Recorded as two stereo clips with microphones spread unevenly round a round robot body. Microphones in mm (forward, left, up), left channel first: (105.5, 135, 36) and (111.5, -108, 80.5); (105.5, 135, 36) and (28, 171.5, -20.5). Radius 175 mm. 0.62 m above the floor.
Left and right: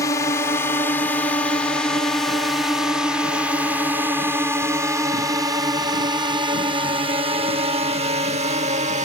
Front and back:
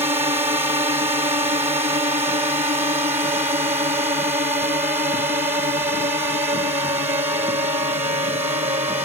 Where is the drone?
160° left; by 9.1 s 155° right.